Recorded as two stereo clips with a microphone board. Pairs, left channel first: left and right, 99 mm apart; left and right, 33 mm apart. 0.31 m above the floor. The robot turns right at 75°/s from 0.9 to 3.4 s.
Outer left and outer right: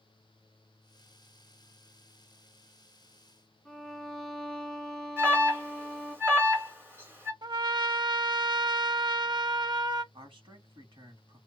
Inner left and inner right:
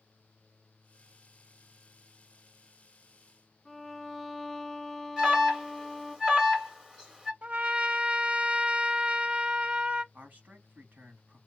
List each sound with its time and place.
3.6 s a violin: centre (ahead or behind), 1.4 m
5.2 s an alarm: 25° right (ahead or behind), 2.5 m
7.4 s a trumpet: 45° right (ahead or behind), 0.6 m
10.1 s a man speaking: 60° right (ahead or behind), 2 m